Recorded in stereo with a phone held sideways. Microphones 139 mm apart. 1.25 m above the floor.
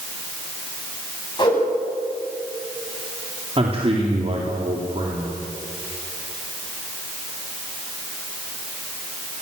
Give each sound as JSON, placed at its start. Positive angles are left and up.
{"t": 1.4, "sound": "a whoosh", "side_deg": 30, "distance_m": 10.0}
{"t": 3.6, "sound": "a man speaking", "side_deg": -40, "distance_m": 3.5}